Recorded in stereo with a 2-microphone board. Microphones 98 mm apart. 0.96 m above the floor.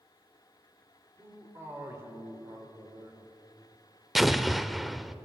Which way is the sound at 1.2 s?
30° right (ahead or behind).